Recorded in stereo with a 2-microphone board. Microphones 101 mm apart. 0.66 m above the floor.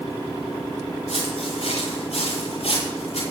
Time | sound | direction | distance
1.1 | footsteps | 85° left | 9 m